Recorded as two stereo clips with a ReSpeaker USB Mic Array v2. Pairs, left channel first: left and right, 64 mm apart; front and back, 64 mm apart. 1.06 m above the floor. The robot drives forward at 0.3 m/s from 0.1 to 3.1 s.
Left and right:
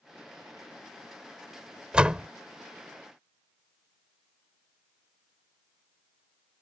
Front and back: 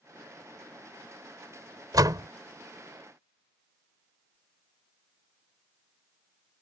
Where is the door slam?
165° right.